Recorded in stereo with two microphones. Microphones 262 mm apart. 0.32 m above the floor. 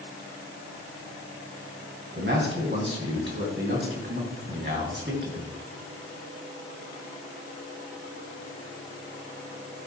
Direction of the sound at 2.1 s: 45° right (ahead or behind).